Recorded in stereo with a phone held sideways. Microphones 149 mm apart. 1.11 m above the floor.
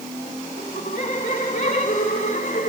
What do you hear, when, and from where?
0.6 s laughter: 65° left (ahead or behind), 4 m